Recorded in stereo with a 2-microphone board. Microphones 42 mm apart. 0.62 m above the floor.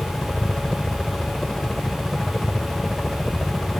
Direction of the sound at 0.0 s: 20° left (ahead or behind).